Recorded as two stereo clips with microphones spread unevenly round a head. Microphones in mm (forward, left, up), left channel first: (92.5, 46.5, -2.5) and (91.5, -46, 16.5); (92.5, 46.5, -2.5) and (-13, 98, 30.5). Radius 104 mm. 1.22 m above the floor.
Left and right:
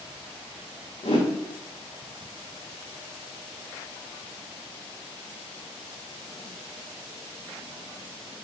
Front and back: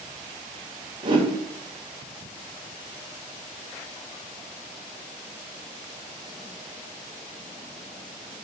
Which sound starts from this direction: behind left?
A whoosh, at 1.0 s.